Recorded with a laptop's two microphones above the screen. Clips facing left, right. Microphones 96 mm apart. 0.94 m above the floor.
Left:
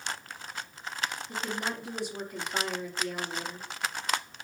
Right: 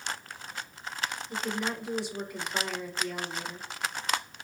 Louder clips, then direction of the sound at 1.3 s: Right 4 dB; 55° left (ahead or behind).